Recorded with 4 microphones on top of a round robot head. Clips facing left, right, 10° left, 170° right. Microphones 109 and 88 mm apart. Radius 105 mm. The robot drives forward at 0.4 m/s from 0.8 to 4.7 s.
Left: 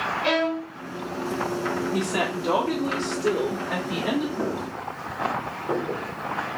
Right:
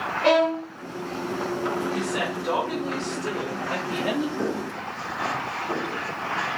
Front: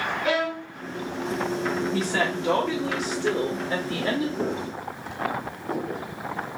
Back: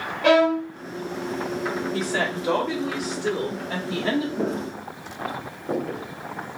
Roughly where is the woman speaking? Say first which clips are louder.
Left 2 dB, even; left.